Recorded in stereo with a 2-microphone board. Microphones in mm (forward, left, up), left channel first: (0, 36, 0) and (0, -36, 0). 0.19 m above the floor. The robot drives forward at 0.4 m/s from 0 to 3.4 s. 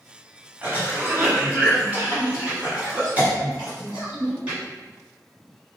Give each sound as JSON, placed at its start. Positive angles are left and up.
{"t": 0.6, "sound": "a cough", "side_deg": -25, "distance_m": 1.4}